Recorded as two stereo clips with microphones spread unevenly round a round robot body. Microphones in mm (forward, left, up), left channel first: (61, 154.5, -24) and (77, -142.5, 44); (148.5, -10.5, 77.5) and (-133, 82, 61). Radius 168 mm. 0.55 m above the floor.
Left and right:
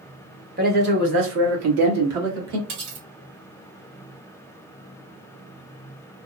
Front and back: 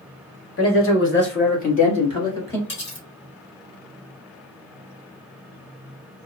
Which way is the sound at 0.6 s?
25° right.